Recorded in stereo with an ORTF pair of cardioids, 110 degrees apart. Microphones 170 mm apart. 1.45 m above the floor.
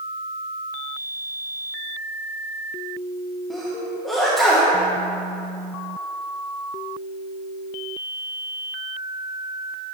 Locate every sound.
3.5 s a sneeze: straight ahead, 1.1 m